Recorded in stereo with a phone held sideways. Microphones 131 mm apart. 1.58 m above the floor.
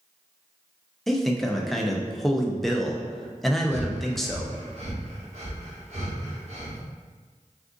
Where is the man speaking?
Centre (ahead or behind), 0.5 m.